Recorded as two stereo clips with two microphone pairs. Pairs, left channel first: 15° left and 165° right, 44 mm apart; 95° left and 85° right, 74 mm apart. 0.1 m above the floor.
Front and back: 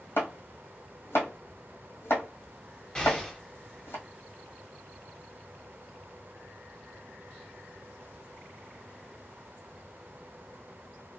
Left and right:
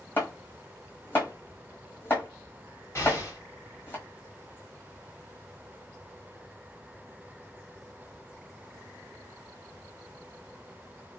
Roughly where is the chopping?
Ahead left.